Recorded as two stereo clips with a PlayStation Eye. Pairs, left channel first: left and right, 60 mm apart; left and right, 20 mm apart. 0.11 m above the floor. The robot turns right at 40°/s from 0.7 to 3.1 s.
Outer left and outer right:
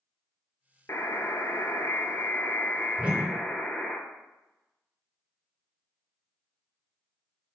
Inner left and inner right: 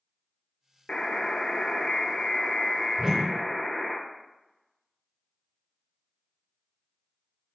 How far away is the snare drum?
I don't hear a snare drum.